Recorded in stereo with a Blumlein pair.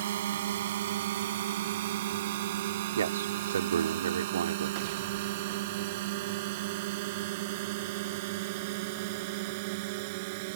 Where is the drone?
60° right; by 10.6 s 45° right.